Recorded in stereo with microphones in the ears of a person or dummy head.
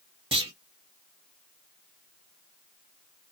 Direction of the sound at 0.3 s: 25° right (ahead or behind).